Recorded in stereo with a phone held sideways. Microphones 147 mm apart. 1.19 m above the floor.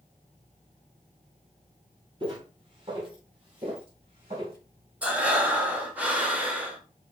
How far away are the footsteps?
About 2 m.